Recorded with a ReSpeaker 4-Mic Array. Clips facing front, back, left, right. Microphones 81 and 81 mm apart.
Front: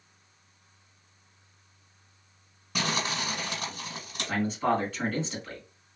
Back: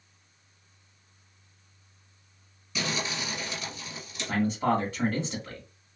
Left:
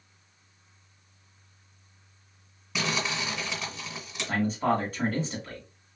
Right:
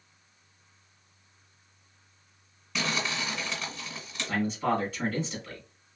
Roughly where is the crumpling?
Ahead.